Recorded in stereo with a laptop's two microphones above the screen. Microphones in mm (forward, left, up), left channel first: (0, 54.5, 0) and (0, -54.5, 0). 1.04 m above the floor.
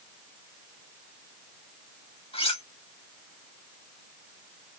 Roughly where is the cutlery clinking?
Left.